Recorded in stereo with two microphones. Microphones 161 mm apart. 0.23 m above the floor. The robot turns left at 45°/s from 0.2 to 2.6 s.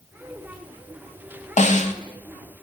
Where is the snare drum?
50° left (ahead or behind), 0.6 m; by 1.9 s 45° left (ahead or behind), 0.6 m.